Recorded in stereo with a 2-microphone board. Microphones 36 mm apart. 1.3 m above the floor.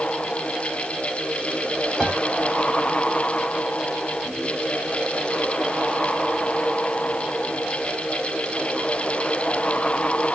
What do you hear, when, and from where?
2.0 s a piano: centre (ahead or behind), 1.3 m